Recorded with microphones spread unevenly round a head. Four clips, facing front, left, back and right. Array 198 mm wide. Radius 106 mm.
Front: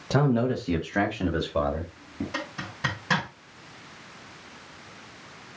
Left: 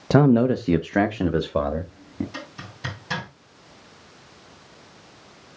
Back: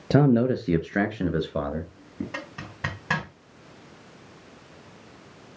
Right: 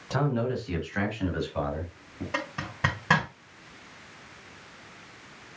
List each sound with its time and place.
0.1 s a man speaking: 120° left, 0.6 m; by 2.2 s 105° left, 1.7 m
2.3 s a zipper: 80° right, 3 m